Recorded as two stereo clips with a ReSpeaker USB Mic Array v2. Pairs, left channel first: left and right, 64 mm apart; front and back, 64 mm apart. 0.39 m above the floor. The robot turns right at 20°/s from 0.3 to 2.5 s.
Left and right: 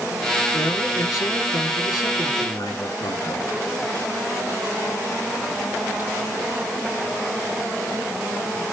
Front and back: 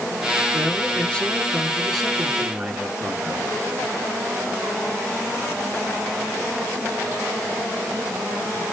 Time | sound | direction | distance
0.5 | a man speaking | 60° left | 4 m